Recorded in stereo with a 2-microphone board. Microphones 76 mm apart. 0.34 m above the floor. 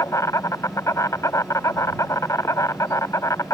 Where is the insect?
50° left (ahead or behind).